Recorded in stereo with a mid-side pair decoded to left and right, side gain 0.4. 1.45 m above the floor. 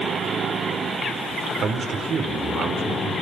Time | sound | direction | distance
1.6 | a man speaking | 60° right | 5 m